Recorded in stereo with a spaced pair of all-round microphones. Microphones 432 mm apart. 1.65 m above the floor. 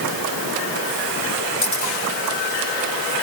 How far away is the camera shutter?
About 9 m.